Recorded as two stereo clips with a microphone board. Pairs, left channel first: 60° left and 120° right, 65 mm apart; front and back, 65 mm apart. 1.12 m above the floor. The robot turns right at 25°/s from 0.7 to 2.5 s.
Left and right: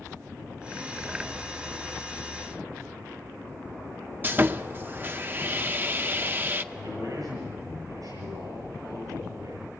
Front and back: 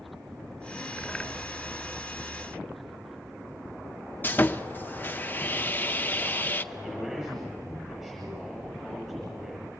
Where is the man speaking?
95° right, 7.5 m.